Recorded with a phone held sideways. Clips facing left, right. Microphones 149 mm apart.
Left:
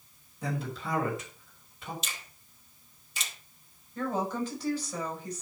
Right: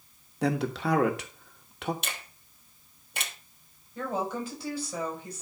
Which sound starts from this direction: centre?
A woman speaking, at 4.0 s.